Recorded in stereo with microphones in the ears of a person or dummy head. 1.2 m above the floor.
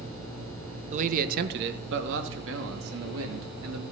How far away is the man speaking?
About 0.7 m.